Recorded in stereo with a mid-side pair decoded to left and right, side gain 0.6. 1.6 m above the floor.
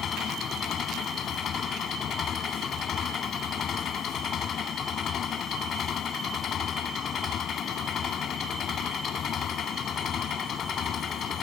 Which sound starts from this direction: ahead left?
An engine running, at 0.0 s.